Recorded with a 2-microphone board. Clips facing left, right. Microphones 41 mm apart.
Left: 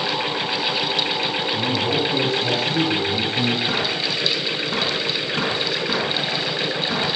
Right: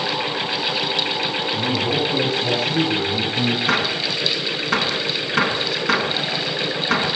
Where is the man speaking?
5° left (ahead or behind), 6.5 m; by 3.6 s 10° right (ahead or behind), 4.5 m.